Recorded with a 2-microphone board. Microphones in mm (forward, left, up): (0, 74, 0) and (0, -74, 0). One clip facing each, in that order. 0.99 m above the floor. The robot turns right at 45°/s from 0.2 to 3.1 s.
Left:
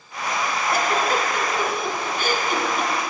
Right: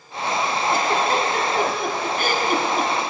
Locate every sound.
0.7 s a giggle: 25° right (ahead or behind), 1.4 m; by 2.9 s 40° right (ahead or behind), 1.4 m